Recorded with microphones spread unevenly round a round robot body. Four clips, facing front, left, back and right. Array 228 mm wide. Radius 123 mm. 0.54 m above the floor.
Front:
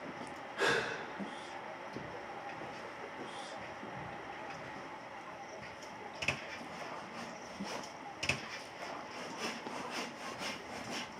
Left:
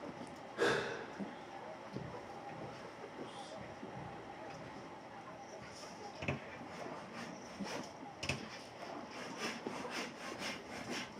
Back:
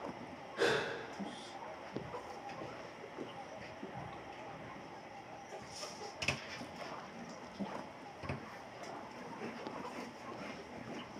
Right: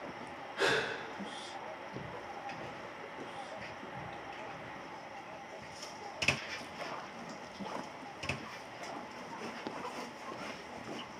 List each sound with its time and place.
0.6 s a gasp: 125° left, 1.1 m